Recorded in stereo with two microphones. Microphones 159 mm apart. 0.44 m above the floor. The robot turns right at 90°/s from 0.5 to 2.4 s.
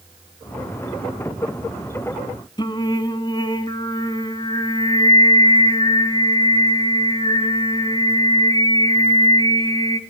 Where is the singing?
30° left (ahead or behind), 0.7 m.